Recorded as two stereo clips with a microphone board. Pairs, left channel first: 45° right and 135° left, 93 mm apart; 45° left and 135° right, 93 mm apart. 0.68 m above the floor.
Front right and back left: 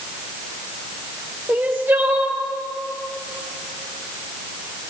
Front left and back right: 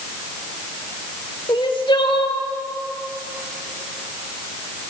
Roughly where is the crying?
Left.